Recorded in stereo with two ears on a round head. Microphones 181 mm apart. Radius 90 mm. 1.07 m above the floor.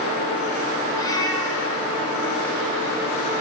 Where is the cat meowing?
20° left (ahead or behind), 2.0 m.